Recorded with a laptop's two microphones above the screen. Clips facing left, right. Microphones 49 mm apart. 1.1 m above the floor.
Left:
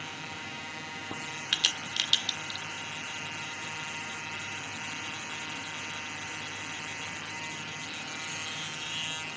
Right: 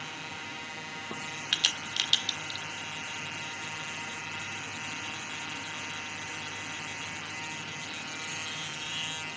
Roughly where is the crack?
Centre.